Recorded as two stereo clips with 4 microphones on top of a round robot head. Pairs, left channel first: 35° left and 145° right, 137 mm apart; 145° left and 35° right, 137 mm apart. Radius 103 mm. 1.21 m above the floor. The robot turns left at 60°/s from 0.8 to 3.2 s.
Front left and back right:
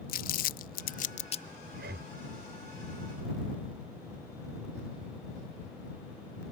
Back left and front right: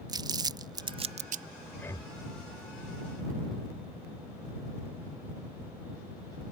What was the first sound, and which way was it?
Crumpling, 25° left.